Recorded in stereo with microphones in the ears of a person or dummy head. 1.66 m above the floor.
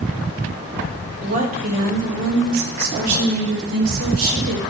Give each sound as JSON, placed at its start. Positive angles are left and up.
{"t": 1.2, "sound": "a woman speaking", "side_deg": -35, "distance_m": 1.4}